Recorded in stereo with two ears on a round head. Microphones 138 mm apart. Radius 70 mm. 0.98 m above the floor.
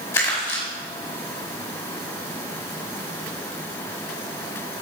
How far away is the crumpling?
About 4.5 m.